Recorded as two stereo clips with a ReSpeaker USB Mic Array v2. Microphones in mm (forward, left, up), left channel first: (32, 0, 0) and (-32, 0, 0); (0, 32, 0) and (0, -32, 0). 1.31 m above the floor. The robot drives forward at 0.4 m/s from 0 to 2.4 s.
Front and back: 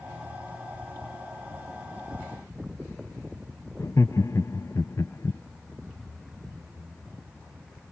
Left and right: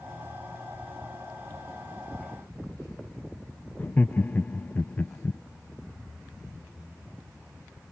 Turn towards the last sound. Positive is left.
turn(degrees=30)